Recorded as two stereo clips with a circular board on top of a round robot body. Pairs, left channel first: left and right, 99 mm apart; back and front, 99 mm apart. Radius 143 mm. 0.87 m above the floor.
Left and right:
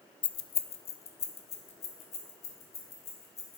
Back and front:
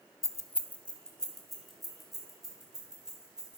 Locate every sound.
0.2 s keys jangling: 125° left, 0.5 m; by 3.6 s 85° left, 3 m